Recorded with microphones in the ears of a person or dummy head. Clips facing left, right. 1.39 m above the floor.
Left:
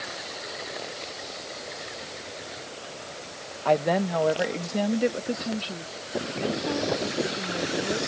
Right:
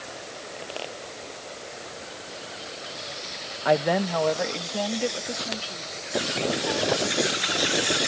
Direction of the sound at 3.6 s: 15° right (ahead or behind).